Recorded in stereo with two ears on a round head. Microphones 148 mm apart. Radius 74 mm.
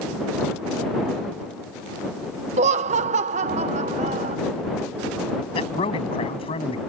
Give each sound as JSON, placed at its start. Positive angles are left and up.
{"t": 2.6, "sound": "laughter", "side_deg": -40}
{"t": 5.5, "sound": "a man speaking", "side_deg": 35}